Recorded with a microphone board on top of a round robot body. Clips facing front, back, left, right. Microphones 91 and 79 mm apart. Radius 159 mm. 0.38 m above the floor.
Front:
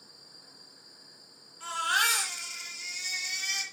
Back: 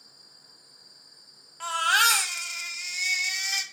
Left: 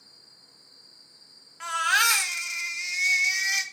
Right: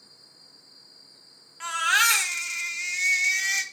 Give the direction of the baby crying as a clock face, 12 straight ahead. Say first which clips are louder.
Back 5 dB, right 1 dB; 6 o'clock.